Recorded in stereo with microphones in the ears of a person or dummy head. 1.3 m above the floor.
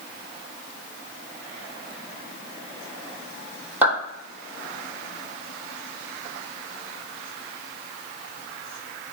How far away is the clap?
About 2.0 m.